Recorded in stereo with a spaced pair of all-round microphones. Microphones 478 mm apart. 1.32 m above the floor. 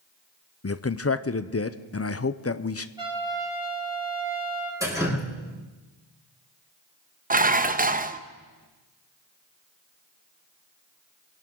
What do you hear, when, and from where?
0.6 s a man speaking: 30° left (ahead or behind), 0.5 m
3.0 s a trumpet: 10° right (ahead or behind), 4.5 m
4.8 s dripping: 5° right (ahead or behind), 6 m
7.3 s dishes clattering: 20° right (ahead or behind), 0.6 m